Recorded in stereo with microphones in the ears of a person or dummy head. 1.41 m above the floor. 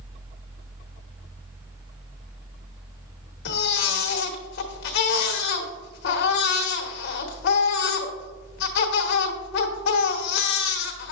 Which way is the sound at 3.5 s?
55° left (ahead or behind).